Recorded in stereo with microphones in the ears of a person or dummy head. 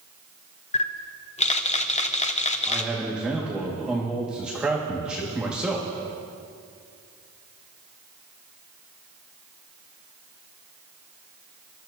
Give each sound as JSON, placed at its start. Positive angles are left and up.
{"t": 0.7, "sound": "a camera shutter", "side_deg": 35, "distance_m": 0.6}
{"t": 2.6, "sound": "a man speaking", "side_deg": -5, "distance_m": 1.7}